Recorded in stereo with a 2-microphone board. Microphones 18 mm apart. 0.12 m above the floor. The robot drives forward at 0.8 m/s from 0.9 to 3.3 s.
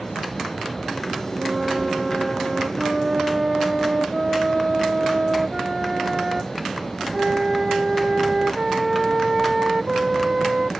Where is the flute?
45° right (ahead or behind); by 10.7 s 25° right (ahead or behind).